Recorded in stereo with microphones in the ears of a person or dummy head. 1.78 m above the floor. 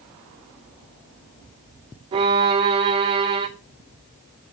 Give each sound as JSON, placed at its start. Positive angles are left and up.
{"t": 2.1, "sound": "a violin", "side_deg": -30, "distance_m": 0.5}